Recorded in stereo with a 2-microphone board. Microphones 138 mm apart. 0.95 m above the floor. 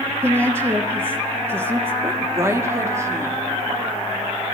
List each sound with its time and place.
0.2 s a woman speaking: 20° right (ahead or behind), 1.1 m
2.0 s a woman speaking: 20° right (ahead or behind), 1.8 m